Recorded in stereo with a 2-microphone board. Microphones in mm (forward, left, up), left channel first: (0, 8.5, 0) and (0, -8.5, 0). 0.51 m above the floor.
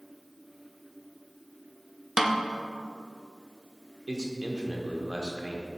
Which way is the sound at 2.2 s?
30° right (ahead or behind).